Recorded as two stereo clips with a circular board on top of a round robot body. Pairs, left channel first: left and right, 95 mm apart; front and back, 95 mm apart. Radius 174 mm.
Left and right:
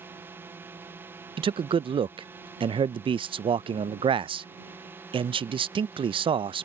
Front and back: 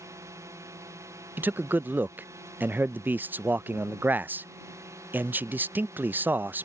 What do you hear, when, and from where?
0.0 s a drone: 145° right
1.4 s a man speaking: 110° right